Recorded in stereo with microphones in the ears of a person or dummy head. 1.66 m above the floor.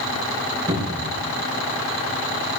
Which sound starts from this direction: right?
A cupboard door, at 0.7 s.